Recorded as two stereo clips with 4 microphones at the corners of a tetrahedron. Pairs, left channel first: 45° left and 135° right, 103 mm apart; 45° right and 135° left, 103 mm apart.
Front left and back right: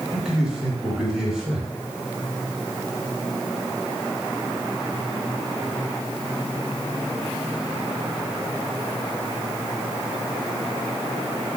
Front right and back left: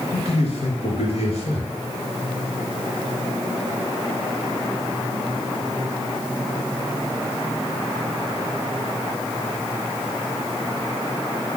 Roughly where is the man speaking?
Ahead right.